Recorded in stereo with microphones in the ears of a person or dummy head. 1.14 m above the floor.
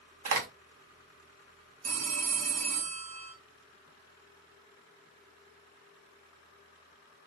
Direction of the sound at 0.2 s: 45° right (ahead or behind).